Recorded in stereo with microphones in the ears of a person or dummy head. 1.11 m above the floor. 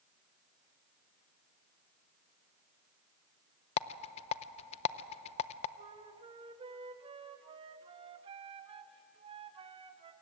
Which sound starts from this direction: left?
A rattle, at 3.8 s.